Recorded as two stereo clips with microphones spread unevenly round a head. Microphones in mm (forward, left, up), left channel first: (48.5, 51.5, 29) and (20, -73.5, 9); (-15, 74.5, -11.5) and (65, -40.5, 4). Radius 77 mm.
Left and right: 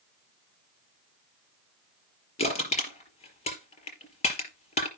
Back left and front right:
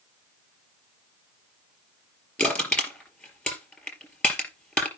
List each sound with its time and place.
2.4 s crushing: 45° left, 5 m